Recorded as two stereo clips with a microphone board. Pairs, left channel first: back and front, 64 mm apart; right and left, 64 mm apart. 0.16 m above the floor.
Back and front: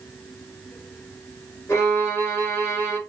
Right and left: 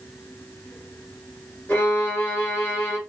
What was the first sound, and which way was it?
A violin, 145° right.